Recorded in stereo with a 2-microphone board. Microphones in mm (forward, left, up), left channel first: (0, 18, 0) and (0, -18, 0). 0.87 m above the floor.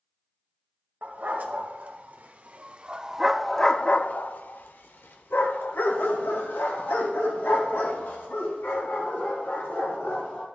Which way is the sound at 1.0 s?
60° right (ahead or behind).